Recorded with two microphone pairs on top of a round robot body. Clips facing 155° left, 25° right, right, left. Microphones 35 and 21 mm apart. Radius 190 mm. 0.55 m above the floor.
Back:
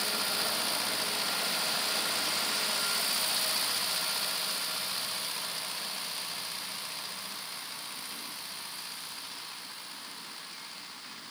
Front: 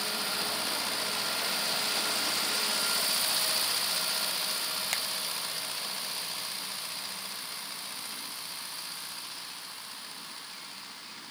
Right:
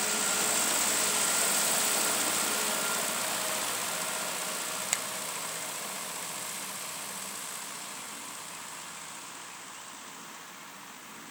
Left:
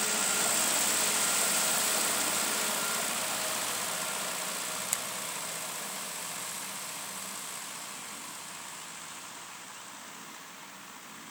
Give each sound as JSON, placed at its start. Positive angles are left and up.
{"t": 4.9, "sound": "a finger snap", "azimuth_deg": -20}